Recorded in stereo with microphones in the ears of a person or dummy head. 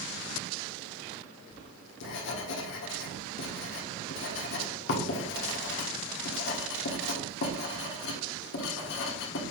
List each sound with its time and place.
1.5 s writing: 65° left (ahead or behind), 1.4 m